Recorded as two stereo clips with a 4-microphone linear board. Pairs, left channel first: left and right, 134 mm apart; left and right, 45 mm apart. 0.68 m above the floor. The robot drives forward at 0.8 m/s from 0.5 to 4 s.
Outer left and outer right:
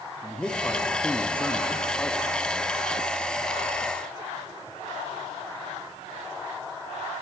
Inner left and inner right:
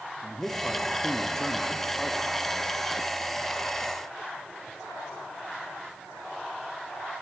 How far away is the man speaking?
About 0.9 m.